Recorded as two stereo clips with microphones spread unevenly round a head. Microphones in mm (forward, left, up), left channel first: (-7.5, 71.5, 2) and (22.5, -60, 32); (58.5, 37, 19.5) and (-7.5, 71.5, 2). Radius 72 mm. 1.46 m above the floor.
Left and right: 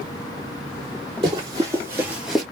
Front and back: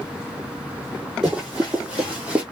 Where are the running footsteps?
120° right, 2.5 m; by 2.4 s 115° right, 1.4 m.